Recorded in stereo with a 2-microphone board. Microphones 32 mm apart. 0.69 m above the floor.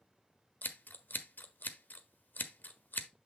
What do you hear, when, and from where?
0.6 s scissors: 65° left (ahead or behind), 0.8 m